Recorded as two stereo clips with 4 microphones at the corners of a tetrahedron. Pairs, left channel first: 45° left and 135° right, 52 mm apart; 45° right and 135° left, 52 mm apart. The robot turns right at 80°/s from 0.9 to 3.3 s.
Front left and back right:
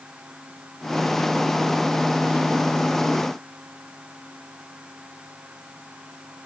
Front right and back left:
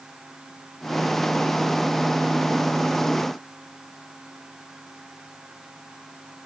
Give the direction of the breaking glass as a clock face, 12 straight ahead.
No breaking glass in this recording.